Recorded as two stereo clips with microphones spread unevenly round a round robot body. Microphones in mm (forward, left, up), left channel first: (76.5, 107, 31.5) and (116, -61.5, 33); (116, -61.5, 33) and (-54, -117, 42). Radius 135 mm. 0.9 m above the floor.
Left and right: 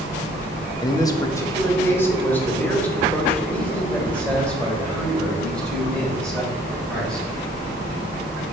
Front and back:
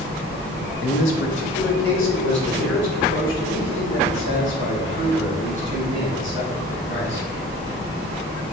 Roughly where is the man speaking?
Ahead left.